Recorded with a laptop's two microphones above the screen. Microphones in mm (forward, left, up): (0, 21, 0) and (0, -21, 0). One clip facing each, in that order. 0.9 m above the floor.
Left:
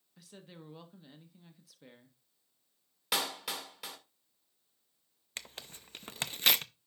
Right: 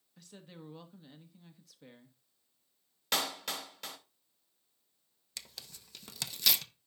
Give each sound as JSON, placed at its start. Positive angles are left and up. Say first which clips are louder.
{"t": 0.2, "sound": "a woman speaking", "louder": "right 1 dB", "side_deg": 0, "distance_m": 1.2}
{"t": 3.1, "sound": "a clap", "louder": "even", "side_deg": 5, "distance_m": 2.0}
{"t": 5.4, "sound": "tearing paper", "louder": "left 4 dB", "side_deg": 40, "distance_m": 0.6}